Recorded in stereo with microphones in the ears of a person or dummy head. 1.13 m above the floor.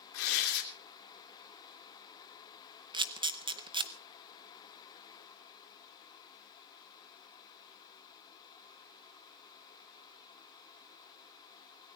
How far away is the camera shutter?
About 0.6 m.